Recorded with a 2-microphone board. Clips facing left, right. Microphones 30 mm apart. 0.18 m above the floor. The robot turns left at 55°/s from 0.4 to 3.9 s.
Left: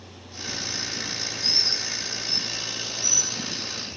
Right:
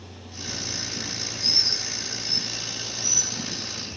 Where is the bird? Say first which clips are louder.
Right 1 dB; 50° right (ahead or behind), 4 m; by 3.3 s 30° right (ahead or behind), 4 m.